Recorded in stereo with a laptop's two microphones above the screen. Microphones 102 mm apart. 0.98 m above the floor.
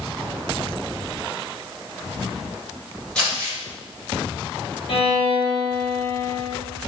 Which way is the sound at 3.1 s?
10° left (ahead or behind).